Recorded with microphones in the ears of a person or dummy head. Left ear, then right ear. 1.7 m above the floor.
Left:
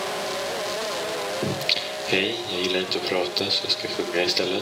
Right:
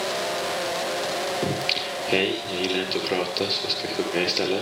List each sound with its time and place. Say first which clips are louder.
1.4 s singing: even; 10° left (ahead or behind), 5 m